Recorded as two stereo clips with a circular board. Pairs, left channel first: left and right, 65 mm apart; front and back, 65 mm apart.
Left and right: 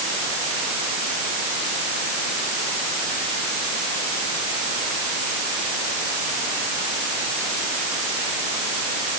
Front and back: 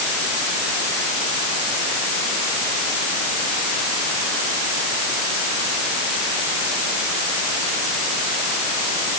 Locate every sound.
Only background noise.